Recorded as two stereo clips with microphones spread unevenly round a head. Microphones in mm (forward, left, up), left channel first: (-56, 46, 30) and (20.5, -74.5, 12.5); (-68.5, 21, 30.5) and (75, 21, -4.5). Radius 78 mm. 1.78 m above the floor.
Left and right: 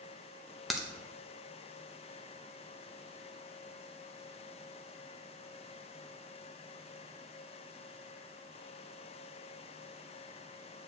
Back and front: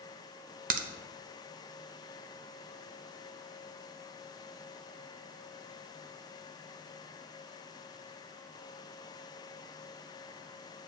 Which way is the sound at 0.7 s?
35° left.